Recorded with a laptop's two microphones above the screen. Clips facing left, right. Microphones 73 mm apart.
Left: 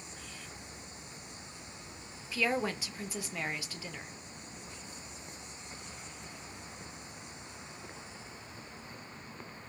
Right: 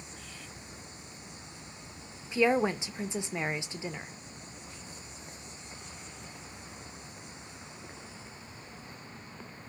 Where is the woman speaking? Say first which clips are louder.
Right 6 dB; 20° right (ahead or behind), 0.5 m.